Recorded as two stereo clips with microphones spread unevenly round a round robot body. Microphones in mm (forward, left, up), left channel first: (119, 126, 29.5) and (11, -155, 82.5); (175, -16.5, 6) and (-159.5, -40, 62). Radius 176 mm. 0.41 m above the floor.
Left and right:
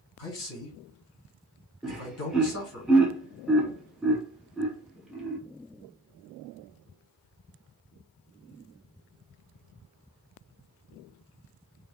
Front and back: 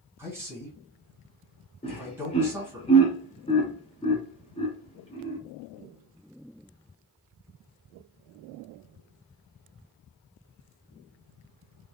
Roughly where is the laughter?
Ahead.